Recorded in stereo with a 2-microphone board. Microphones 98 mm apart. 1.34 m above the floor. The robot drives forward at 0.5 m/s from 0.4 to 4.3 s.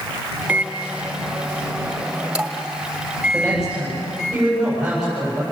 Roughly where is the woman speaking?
Centre.